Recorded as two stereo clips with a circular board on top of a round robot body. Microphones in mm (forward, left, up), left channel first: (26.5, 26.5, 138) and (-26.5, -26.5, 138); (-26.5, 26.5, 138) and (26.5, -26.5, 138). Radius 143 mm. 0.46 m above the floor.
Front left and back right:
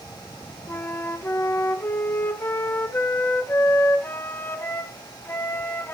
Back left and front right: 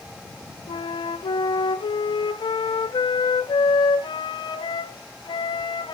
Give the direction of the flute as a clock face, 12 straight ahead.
8 o'clock.